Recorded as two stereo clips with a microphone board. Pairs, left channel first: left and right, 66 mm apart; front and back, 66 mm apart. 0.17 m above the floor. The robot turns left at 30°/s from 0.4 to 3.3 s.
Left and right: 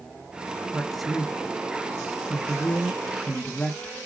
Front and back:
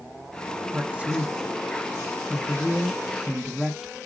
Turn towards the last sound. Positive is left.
turn(degrees=115)